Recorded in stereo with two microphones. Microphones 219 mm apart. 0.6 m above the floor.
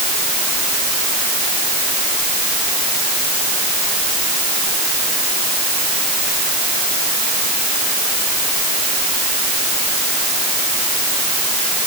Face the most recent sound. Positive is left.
No sound to turn to.